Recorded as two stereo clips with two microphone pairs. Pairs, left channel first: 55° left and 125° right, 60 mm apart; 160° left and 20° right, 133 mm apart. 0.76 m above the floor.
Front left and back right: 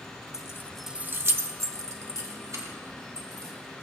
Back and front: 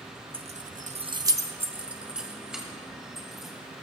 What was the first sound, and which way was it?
Keys jangling, 25° left.